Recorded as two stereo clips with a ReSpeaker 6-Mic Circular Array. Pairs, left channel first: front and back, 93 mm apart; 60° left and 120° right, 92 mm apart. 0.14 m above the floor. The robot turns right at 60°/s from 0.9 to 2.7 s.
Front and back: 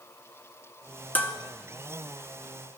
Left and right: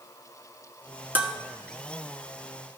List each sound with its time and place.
1.1 s dishes clattering: 60° right, 0.9 m; by 1.3 s 50° right, 0.9 m